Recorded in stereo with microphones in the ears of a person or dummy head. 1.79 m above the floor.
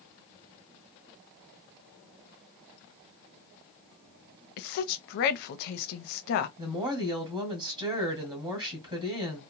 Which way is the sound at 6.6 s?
25° right (ahead or behind).